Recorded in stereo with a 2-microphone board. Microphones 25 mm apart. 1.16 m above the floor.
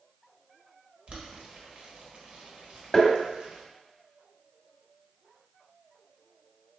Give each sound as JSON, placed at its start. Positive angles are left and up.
{"t": 1.1, "sound": "boiling", "side_deg": -40, "distance_m": 1.1}
{"t": 2.9, "sound": "tapping", "side_deg": 5, "distance_m": 1.1}